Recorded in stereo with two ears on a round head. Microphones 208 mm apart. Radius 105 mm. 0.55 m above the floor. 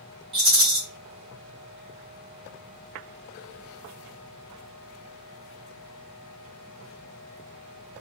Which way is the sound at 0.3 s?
25° right (ahead or behind).